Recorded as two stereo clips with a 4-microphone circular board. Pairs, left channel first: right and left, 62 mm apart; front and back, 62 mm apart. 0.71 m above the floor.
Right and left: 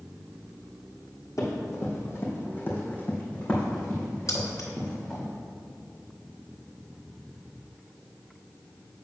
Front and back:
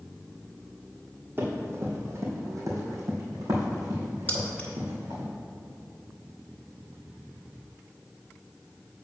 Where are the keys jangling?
65° right, 1.3 m.